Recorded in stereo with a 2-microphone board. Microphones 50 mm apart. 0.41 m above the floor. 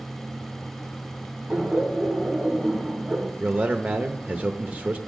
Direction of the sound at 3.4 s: 30° right (ahead or behind).